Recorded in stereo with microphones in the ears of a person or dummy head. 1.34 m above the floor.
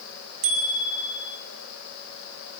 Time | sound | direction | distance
0.4 | a bicycle bell | 75° right (ahead or behind) | 7.5 m